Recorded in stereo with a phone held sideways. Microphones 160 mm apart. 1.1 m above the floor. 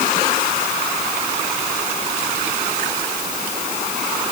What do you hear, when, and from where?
Only background noise.